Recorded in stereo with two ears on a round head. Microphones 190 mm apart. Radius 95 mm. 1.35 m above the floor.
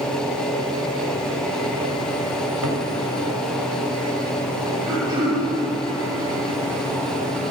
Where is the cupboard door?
75° right (ahead or behind), 5 m.